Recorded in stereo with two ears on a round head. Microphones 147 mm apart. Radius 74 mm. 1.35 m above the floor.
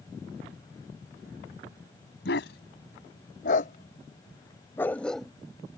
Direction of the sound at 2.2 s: 75° left (ahead or behind).